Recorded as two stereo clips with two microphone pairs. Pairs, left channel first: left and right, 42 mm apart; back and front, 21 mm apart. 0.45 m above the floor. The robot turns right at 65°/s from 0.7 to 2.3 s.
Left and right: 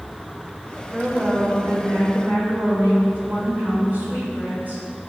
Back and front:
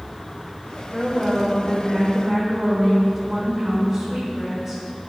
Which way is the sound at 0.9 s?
155° right.